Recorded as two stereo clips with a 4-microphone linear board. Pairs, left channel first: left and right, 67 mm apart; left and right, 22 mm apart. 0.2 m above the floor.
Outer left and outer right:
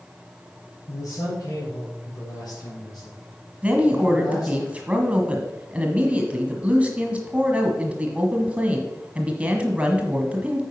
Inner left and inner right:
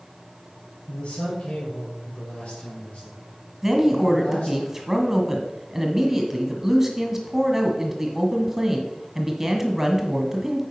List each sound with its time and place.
0.9 s a man speaking: 55° left (ahead or behind), 4 m; by 4.6 s 75° left (ahead or behind), 5 m
3.6 s a woman speaking: 15° right (ahead or behind), 1.4 m